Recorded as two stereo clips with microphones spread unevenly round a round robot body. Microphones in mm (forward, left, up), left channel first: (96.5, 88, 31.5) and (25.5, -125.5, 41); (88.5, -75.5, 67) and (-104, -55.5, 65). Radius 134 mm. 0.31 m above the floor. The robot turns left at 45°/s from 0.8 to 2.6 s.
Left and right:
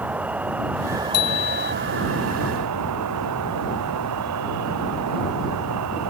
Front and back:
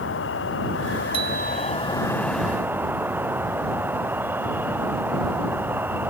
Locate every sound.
0.0 s an insect: 25° right; by 6.1 s 105° right
1.1 s a bicycle bell: 105° left; by 1.7 s 80° left